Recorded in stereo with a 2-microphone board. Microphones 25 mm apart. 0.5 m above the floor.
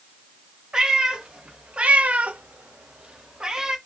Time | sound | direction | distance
0.7 | a cat meowing | 35° right (ahead or behind) | 1.0 m